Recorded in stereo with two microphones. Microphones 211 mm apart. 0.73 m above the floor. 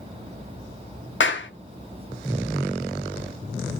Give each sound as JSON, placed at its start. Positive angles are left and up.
{"t": 1.2, "sound": "a clap", "side_deg": 75, "distance_m": 0.9}